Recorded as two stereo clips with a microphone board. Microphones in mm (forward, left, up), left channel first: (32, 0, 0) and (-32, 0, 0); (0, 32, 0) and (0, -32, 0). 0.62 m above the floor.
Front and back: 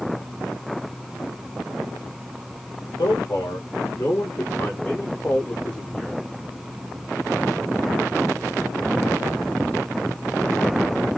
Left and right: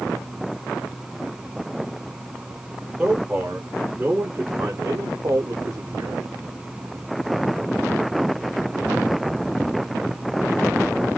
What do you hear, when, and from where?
3.0 s a man speaking: 20° right, 2 m; by 6.2 s 90° right, 1.4 m